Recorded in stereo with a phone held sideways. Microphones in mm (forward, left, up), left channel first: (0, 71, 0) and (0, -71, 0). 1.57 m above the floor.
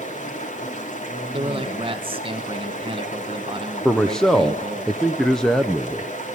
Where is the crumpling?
I don't hear crumpling.